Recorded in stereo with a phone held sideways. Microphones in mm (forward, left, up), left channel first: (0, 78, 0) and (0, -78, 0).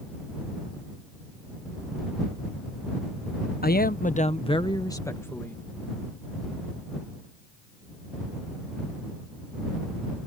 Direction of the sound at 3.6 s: 75° left (ahead or behind).